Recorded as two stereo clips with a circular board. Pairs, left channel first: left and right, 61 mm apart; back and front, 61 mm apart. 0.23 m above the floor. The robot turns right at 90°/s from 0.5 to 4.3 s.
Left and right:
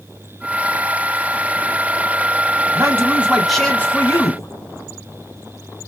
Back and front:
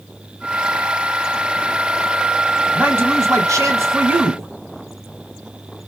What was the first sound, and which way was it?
A man speaking, 65° right.